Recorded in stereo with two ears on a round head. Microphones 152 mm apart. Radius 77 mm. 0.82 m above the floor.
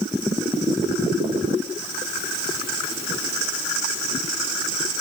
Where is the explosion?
No explosion in this recording.